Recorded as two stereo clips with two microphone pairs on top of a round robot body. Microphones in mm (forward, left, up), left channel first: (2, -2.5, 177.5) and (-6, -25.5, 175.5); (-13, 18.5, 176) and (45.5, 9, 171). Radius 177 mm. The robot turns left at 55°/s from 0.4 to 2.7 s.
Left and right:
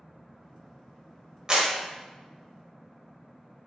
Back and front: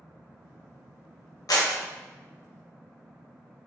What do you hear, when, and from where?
1.5 s a clap: 170° right, 0.7 m; by 1.7 s straight behind, 0.7 m